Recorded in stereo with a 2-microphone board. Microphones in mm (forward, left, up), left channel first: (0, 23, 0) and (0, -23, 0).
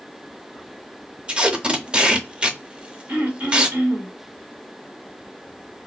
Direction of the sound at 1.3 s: 20° right (ahead or behind).